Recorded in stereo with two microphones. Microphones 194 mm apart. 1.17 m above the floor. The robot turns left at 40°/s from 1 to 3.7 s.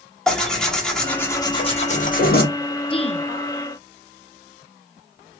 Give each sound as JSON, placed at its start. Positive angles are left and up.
{"t": 0.3, "sound": "tearing paper", "azimuth_deg": 175, "distance_m": 1.2}
{"t": 2.9, "sound": "a woman speaking", "side_deg": 25, "distance_m": 0.5}